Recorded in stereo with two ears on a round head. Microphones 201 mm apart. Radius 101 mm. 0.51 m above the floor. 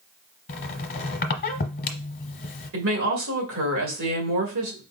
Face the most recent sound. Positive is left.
turn(degrees=-60)  # may be behind; listen again after turning